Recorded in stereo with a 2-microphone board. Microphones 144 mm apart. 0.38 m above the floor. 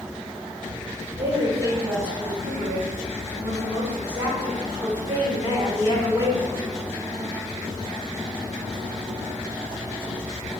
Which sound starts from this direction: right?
A woman speaking, at 1.2 s.